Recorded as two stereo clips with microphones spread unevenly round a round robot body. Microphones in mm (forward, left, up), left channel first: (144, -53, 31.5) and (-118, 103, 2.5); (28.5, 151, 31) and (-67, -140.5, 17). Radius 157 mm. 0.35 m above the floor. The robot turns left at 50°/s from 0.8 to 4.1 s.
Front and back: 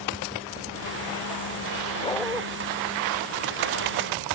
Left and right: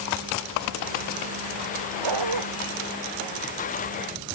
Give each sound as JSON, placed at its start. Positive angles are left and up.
{"t": 2.0, "sound": "a dog barking", "azimuth_deg": -105}